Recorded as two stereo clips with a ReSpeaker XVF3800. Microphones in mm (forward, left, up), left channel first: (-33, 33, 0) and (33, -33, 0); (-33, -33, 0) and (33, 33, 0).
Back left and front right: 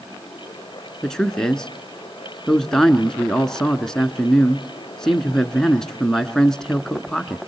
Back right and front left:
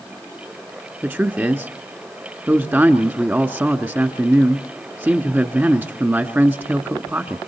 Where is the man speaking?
60° left, 1.1 m.